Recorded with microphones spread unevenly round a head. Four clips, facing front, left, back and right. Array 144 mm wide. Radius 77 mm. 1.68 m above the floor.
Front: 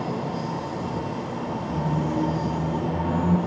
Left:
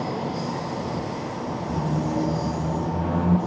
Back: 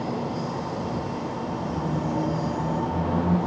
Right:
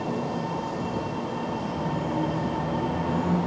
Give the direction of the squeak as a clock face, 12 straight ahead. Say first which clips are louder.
Left 6 dB, front 2 dB; 9 o'clock.